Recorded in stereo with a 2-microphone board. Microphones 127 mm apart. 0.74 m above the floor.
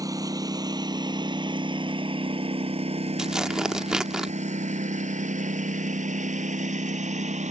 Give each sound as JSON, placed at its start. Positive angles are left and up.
{"t": 0.0, "sound": "a lawn mower", "side_deg": -30}
{"t": 3.2, "sound": "tearing paper", "side_deg": -5}